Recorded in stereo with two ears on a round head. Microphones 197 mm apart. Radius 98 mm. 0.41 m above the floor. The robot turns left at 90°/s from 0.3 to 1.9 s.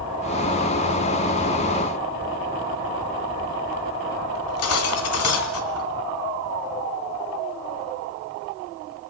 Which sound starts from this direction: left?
Cutlery clinking, at 4.3 s.